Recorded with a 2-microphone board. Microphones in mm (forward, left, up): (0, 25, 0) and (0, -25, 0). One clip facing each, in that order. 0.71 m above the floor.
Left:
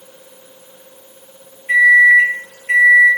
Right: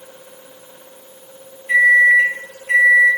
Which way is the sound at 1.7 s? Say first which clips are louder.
Left 2 dB; 50° left (ahead or behind).